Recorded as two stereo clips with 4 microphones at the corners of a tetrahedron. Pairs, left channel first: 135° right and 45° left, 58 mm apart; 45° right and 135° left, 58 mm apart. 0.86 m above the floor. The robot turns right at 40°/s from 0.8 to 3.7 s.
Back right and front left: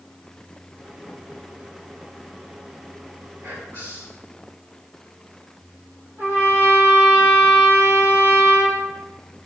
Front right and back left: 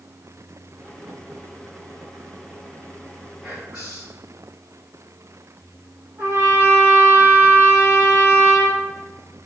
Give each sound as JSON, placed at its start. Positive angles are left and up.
{"t": 3.4, "sound": "whispering", "azimuth_deg": 55, "distance_m": 3.5}
{"t": 6.2, "sound": "a trumpet", "azimuth_deg": 90, "distance_m": 4.0}